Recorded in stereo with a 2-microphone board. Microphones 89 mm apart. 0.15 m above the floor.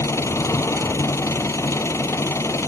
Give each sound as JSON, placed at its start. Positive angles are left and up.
{"t": 0.0, "sound": "an engine running", "side_deg": 30}